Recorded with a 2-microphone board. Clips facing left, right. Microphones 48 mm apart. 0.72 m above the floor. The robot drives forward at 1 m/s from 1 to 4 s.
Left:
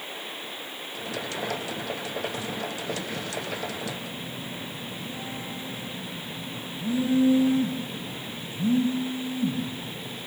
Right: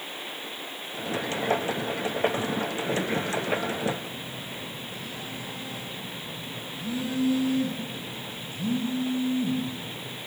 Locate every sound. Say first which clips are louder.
3.9 s a phone buzzing: right 2 dB; 25° left (ahead or behind), 4 m